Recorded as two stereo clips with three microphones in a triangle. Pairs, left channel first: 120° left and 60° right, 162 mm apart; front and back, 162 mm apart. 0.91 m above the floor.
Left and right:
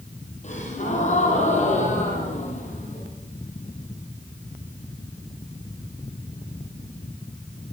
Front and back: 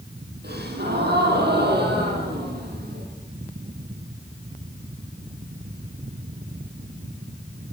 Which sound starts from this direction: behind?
A gasp, at 0.4 s.